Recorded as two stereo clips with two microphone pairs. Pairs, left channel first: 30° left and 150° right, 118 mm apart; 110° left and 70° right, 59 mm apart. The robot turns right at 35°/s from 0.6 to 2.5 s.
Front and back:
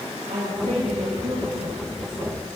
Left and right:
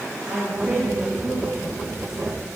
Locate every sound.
0.3 s a woman speaking: 145° right, 8.5 m; by 2.5 s 80° right, 8.5 m